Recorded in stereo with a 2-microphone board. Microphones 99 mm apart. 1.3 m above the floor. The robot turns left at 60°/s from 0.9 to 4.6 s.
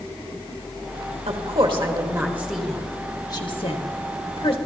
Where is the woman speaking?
80° right, 1.6 m; by 4.6 s 65° left (ahead or behind), 1.6 m.